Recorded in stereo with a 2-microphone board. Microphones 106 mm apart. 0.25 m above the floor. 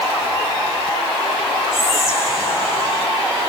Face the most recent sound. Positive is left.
turn(degrees=30)  # may be behind; listen again after turning